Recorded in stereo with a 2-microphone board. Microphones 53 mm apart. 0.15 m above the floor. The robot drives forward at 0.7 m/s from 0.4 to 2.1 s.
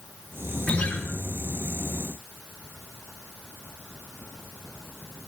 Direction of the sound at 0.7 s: 30° left (ahead or behind).